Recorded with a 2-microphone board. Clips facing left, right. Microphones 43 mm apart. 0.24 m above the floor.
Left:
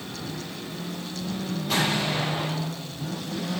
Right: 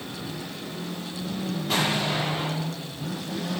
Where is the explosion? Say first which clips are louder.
Even; 5° right (ahead or behind), 5.5 m.